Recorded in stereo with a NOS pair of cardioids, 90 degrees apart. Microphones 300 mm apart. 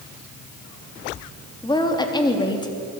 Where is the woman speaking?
15° left, 3.5 m.